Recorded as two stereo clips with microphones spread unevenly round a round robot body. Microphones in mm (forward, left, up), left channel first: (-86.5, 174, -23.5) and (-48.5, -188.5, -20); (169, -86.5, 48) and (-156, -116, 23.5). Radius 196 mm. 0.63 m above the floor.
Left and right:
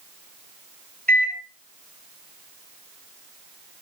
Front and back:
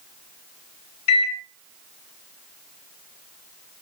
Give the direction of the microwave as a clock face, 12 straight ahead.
12 o'clock.